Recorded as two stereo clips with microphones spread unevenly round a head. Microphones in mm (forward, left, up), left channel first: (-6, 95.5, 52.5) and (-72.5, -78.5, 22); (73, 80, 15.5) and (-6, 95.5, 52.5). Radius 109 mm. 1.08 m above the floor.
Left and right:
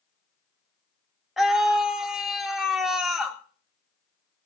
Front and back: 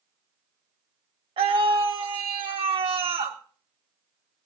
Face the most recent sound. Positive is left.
turn(degrees=160)